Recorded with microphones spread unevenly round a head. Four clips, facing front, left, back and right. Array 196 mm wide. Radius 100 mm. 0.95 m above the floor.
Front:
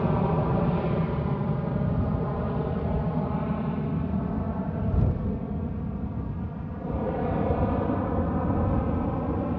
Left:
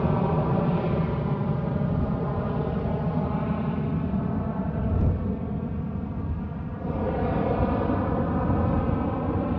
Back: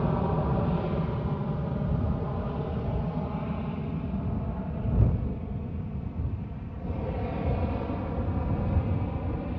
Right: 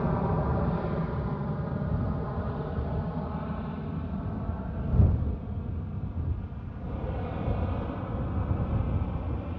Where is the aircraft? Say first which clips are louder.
Left 4 dB, front 3 dB; 60° left.